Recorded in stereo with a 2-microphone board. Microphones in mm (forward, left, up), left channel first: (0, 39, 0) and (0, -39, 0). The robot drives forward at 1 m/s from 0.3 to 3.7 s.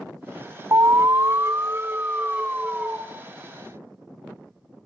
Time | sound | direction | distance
0.7 | an alarm | 45° right (ahead or behind) | 0.9 m